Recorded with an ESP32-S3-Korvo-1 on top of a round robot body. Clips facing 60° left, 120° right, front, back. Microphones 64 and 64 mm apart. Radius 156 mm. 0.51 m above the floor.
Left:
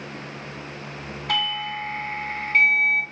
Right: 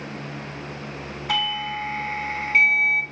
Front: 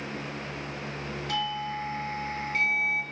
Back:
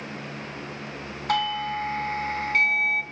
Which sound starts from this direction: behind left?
A doorbell, at 1.3 s.